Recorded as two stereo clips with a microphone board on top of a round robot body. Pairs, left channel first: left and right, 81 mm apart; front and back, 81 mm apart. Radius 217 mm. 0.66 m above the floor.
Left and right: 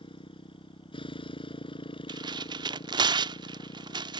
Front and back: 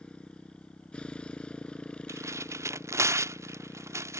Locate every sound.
0.0 s a motorcycle: 80° left
2.1 s tearing paper: 120° right